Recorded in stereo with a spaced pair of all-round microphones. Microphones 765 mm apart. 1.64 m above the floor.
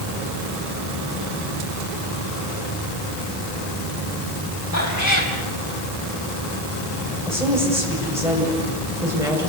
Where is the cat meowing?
20° left (ahead or behind), 4 m.